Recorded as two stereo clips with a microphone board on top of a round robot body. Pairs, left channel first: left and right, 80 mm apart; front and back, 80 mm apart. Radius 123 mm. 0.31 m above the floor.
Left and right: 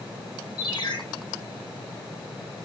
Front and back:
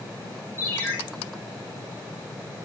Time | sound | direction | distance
0.6 | a ringtone | 65° left | 8.5 m